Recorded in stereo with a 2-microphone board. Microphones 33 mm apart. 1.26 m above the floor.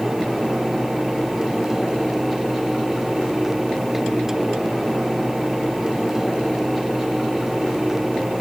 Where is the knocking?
No knocking in this recording.